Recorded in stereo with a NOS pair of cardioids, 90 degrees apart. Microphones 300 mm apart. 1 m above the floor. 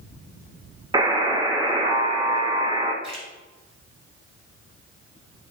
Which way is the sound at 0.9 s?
15° right.